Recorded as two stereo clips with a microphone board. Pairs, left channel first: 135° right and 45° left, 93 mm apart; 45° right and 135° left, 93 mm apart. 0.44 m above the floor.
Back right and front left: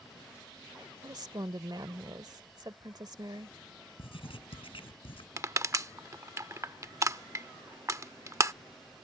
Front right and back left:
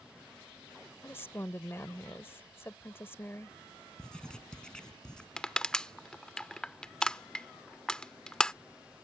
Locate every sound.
1.0 s a woman speaking: 15° left
4.0 s writing: 125° right
5.4 s crushing: 30° left